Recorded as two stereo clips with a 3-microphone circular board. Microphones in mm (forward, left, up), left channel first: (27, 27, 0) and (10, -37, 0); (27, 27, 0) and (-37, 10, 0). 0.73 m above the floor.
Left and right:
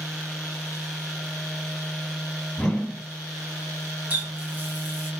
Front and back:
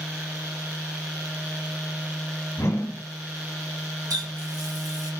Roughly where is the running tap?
Behind.